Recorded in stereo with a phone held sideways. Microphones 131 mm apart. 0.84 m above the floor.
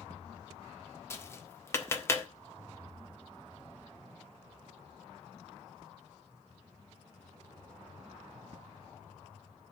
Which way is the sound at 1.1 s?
20° left (ahead or behind).